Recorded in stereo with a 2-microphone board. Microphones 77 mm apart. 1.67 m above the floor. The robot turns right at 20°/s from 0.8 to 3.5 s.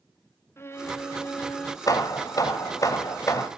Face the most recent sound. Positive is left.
turn(degrees=125)